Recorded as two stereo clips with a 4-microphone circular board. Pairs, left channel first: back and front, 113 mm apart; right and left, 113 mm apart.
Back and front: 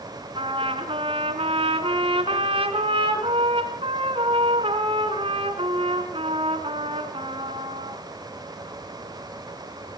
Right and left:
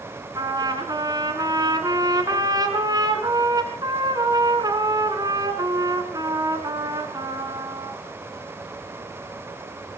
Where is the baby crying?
I don't hear a baby crying.